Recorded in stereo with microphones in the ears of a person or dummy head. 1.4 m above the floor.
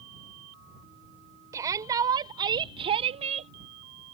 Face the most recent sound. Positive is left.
turn(degrees=-35)  # may be behind; listen again after turning